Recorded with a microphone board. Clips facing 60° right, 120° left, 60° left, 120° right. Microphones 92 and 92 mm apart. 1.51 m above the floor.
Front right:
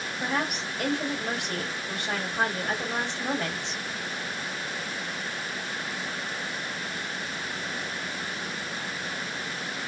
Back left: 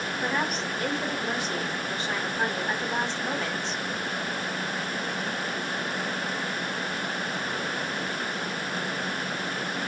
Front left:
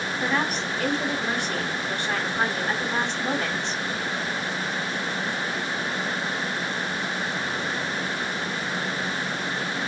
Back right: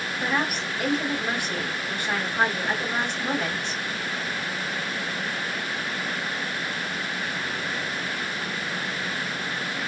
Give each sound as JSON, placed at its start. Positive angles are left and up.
{"t": 0.2, "sound": "a woman speaking", "azimuth_deg": -45, "distance_m": 3.5}